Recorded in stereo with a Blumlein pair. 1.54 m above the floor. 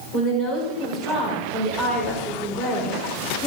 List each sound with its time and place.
0.1 s a woman speaking: 25° left, 6.5 m